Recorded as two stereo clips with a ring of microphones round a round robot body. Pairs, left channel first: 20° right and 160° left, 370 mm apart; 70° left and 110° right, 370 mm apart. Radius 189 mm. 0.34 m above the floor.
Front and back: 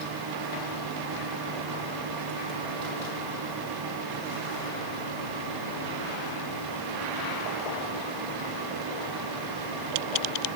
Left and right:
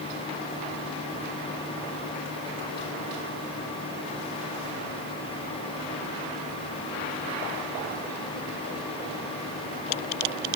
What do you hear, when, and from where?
Only background noise.